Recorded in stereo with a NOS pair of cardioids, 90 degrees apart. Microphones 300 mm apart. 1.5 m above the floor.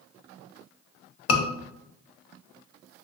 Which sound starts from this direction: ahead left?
A scream, at 1.3 s.